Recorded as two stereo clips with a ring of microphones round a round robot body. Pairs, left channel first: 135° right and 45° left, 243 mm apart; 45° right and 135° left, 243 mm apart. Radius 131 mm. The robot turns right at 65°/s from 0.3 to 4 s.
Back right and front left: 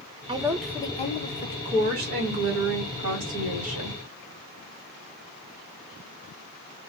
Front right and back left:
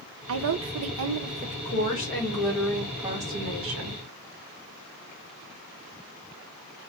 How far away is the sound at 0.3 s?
About 0.6 m.